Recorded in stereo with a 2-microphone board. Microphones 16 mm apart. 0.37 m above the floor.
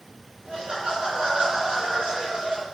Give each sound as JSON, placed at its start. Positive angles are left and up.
{"t": 0.5, "sound": "laughter", "side_deg": -80, "distance_m": 4.0}